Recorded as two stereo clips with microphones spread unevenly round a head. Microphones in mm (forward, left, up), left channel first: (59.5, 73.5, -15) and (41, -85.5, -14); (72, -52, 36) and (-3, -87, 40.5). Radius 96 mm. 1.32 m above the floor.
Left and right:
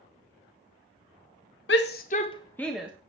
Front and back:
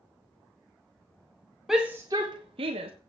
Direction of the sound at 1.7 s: 115° left.